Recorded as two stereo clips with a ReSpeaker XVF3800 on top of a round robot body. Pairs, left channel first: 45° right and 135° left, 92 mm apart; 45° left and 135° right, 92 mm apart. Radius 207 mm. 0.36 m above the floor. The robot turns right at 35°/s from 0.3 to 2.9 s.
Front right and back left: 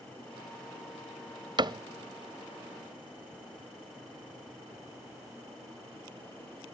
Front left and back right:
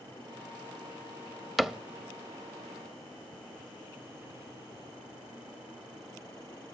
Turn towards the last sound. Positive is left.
turn(degrees=-175)